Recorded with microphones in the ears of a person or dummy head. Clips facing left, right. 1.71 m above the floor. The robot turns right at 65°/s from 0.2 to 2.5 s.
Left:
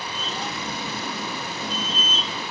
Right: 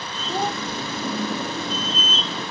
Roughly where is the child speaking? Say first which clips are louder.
Right 9 dB; right.